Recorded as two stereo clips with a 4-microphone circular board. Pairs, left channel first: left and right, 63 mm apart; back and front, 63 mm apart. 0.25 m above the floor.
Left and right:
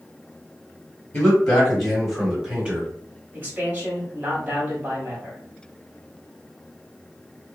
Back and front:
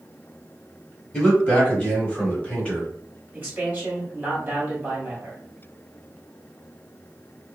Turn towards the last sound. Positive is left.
turn(degrees=-40)